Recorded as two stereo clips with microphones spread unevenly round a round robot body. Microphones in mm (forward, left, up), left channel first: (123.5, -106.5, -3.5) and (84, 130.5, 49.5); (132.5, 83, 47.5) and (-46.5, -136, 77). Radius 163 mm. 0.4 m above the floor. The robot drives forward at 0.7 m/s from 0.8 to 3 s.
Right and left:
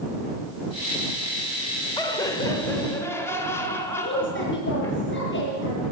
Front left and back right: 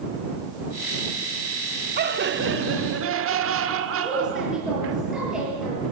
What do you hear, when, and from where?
2.0 s laughter: 105° right, 1.6 m; by 5.0 s 140° right, 1.8 m
4.0 s a woman speaking: 40° right, 9.5 m